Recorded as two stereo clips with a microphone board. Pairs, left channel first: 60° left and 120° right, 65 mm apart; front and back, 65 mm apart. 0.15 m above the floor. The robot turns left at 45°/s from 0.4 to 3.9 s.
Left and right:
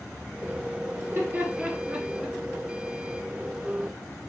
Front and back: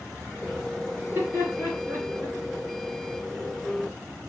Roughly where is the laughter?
Behind right.